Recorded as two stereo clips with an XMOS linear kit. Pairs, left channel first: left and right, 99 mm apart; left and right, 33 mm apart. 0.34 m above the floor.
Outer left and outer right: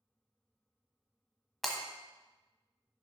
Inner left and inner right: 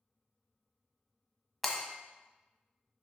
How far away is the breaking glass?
About 1.1 m.